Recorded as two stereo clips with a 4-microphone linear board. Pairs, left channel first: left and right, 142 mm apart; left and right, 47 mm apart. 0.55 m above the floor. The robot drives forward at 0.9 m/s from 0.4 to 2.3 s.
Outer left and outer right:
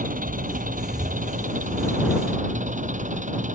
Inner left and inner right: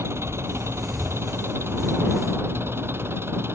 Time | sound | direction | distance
0.0 | an engine running | 75° right (ahead or behind) | ?